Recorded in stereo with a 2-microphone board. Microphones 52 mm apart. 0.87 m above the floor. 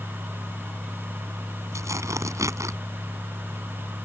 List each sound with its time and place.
1.7 s tearing paper: 80° right